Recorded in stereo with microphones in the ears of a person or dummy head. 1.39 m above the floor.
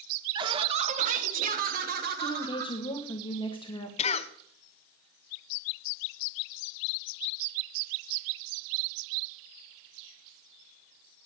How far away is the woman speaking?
About 1.0 m.